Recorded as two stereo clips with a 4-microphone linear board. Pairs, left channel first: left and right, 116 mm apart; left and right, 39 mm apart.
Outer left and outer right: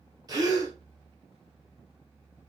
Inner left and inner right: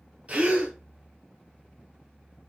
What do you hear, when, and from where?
0.3 s a gasp: 35° right (ahead or behind), 1.3 m